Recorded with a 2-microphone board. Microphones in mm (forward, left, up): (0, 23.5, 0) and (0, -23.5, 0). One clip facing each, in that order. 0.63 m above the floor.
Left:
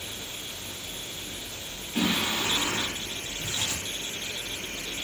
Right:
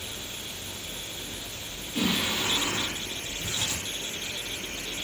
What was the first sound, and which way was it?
Singing, 25° left (ahead or behind).